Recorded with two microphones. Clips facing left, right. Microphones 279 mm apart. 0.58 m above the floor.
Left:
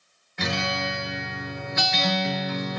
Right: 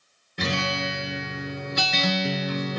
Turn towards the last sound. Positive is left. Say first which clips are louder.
# right 1 dB
turn(degrees=-40)  # may be behind; listen again after turning